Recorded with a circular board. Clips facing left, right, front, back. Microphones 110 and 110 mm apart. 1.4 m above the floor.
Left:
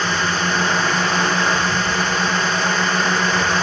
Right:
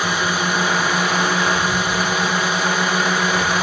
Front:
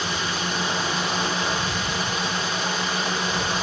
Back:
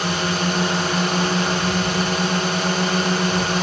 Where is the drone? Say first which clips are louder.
Even, back 5 dB; 165° right.